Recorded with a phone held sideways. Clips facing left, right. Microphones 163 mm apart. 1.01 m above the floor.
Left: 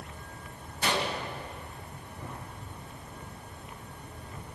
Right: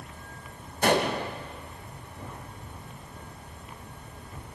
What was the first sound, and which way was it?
A gunshot, 55° right (ahead or behind).